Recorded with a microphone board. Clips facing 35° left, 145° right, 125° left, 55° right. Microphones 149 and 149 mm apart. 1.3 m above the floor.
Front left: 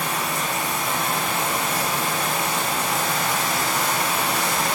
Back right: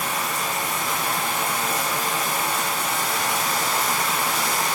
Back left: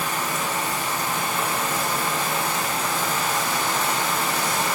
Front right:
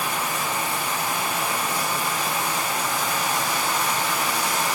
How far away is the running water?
About 5 m.